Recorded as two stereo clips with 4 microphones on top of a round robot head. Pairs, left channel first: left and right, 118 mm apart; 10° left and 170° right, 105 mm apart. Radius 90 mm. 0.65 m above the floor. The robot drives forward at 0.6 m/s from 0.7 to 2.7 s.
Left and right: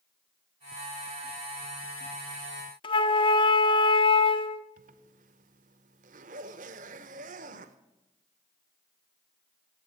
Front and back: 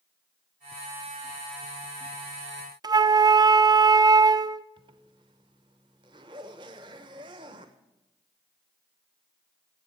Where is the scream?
I don't hear a scream.